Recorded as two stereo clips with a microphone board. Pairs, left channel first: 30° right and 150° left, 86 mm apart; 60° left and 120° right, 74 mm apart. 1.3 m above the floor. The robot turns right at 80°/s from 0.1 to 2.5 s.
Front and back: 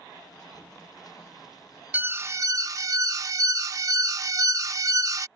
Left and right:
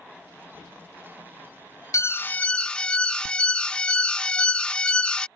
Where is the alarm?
90° left; by 5.3 s 130° left.